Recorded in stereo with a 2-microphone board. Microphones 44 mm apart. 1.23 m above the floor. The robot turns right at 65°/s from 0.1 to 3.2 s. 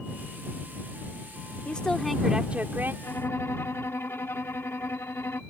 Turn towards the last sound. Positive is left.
turn(degrees=75)  # may be behind; listen again after turning